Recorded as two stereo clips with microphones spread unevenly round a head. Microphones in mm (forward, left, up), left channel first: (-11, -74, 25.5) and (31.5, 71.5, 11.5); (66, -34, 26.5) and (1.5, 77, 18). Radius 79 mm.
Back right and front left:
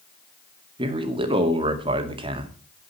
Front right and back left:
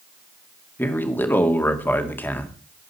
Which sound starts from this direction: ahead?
A man speaking, at 0.8 s.